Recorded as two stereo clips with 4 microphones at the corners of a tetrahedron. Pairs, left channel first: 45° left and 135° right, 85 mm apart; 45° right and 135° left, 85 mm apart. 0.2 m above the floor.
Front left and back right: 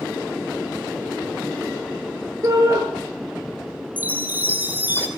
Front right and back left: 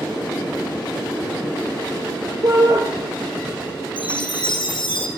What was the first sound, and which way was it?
A shout, 175° left.